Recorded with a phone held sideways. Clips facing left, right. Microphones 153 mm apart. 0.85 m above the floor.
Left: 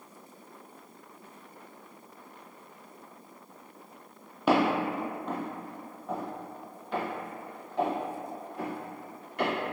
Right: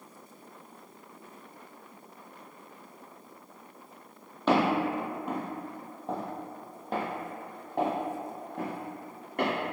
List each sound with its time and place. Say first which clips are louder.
4.5 s footsteps: even; 10° left (ahead or behind), 1.0 m; by 9.5 s 50° right (ahead or behind), 2.5 m